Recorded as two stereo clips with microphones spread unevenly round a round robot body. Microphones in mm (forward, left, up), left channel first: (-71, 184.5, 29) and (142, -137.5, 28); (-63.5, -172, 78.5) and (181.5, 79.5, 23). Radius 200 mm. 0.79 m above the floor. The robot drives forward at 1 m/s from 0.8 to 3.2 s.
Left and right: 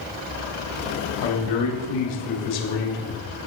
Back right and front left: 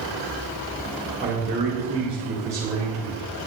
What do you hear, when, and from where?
1.2 s a man speaking: 110° left, 3 m; by 3.2 s 135° left, 4.5 m